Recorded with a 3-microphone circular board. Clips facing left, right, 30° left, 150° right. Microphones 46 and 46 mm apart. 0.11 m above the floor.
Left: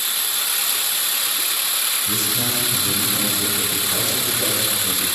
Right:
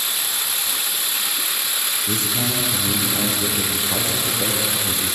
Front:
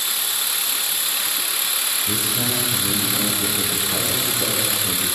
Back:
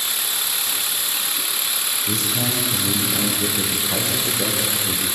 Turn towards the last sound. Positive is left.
turn(degrees=-160)